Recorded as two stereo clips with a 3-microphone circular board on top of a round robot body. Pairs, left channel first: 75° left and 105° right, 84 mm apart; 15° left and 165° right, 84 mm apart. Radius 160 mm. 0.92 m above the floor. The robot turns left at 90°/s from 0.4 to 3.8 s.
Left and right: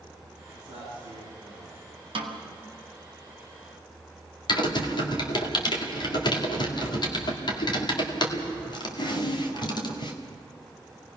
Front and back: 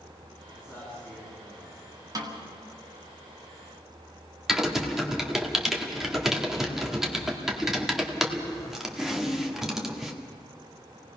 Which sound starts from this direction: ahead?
A man speaking, at 0.5 s.